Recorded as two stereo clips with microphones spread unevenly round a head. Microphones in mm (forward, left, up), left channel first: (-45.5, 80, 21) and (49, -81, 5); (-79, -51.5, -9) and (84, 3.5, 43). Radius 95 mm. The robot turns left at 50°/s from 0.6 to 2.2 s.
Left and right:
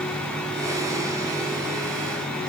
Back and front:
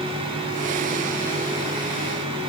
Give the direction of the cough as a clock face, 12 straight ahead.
I don't hear a cough.